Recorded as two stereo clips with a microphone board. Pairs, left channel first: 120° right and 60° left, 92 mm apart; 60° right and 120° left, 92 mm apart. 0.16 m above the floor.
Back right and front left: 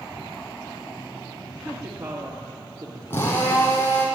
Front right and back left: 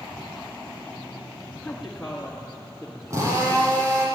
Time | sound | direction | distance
1.6 | a woman speaking | 25° left | 2 m
3.1 | a drill | 175° left | 6.5 m